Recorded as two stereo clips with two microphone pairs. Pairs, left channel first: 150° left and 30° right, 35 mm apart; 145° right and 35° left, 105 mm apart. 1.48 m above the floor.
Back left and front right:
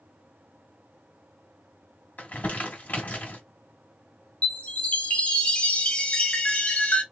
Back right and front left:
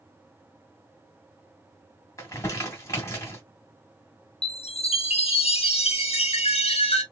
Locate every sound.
2.2 s crumpling: 160° left, 1.8 m
4.4 s a chime: 160° right, 0.9 m